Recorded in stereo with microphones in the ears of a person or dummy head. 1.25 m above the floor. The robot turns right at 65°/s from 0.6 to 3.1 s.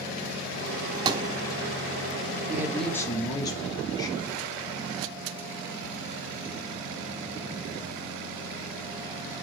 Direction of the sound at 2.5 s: 20° right.